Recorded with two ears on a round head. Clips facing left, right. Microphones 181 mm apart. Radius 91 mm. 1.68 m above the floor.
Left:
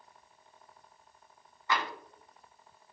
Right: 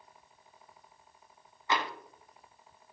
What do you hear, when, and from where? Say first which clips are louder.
1.7 s tapping: right 1 dB; 20° right (ahead or behind), 0.6 m